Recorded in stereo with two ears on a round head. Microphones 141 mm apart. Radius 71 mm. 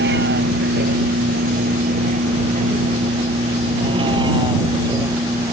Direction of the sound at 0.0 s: 70° right (ahead or behind).